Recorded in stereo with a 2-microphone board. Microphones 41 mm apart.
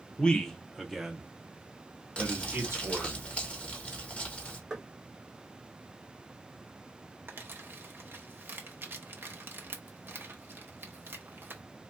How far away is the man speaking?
About 0.8 m.